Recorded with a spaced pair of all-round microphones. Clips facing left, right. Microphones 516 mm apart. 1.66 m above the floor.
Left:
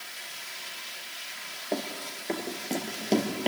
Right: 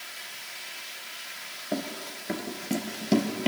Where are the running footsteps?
30° right (ahead or behind), 1.8 m.